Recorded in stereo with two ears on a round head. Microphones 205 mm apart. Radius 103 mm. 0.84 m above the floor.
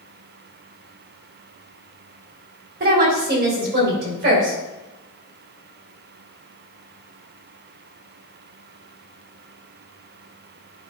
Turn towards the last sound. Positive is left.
turn(degrees=-50)  # may be behind; listen again after turning